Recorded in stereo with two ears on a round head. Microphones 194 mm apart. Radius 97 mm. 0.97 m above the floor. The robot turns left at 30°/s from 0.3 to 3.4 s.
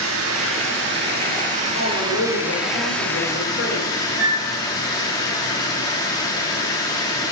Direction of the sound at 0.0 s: 105° right.